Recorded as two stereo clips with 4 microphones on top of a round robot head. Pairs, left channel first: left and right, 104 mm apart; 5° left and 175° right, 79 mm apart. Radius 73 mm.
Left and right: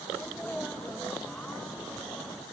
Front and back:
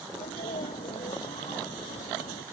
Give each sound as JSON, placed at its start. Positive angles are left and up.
{"t": 0.1, "sound": "a sneeze", "azimuth_deg": 5}